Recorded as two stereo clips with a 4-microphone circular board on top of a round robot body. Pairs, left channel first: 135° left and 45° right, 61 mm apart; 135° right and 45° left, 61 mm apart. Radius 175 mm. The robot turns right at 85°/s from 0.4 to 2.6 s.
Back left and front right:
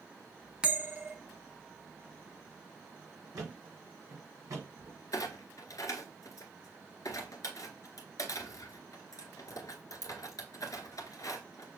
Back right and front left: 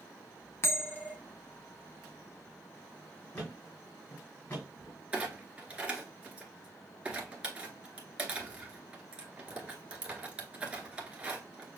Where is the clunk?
110° left, 1.9 m.